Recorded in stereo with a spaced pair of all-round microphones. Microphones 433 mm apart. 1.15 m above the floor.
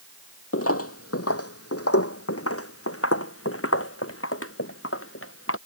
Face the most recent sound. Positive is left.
turn(degrees=30)  # may be behind; listen again after turning